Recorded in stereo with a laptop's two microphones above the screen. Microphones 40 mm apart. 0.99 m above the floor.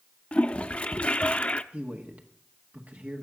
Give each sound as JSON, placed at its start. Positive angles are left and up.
{"t": 0.3, "sound": "a toilet flushing", "side_deg": 30, "distance_m": 0.5}
{"t": 1.7, "sound": "a man speaking", "side_deg": -45, "distance_m": 1.6}